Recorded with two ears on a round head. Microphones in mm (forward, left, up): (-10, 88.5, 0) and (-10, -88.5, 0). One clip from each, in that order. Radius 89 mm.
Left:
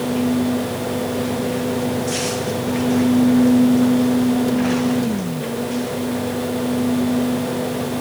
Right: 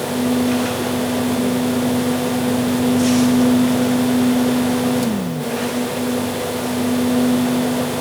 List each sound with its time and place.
Only background noise.